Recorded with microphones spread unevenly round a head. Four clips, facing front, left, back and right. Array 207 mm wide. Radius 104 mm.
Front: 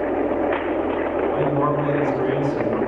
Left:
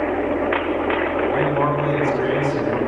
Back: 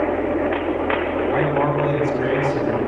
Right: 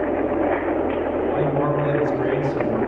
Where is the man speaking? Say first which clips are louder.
Left 1 dB, back 2 dB; 175° right, 7.5 m.